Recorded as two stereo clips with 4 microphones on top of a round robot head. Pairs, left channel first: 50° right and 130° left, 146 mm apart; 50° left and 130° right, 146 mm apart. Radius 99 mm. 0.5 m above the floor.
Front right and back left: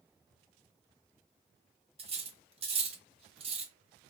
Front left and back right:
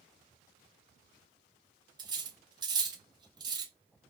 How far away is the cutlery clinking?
About 0.7 m.